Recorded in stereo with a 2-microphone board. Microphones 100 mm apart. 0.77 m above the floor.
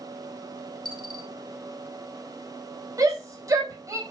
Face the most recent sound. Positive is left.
turn(degrees=-35)  # may be behind; listen again after turning